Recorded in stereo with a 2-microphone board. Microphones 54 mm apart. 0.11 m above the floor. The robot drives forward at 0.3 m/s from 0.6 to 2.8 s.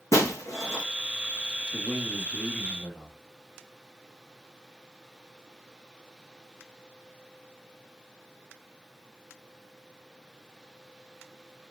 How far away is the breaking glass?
About 1.9 m.